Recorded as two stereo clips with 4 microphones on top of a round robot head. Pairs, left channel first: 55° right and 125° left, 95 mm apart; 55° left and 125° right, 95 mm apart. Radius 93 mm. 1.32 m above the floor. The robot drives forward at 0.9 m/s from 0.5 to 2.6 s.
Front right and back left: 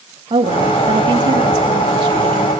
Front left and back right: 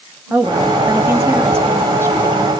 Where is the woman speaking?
165° left, 2.5 m; by 2.5 s 170° left, 4.5 m.